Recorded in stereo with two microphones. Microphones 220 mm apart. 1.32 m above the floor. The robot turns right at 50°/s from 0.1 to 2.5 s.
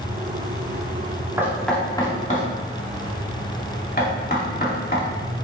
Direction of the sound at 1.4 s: 10° right (ahead or behind).